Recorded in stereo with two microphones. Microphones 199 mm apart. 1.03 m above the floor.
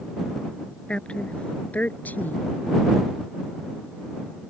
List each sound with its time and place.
0.9 s a woman speaking: 5° left (ahead or behind); by 2.6 s 10° left (ahead or behind)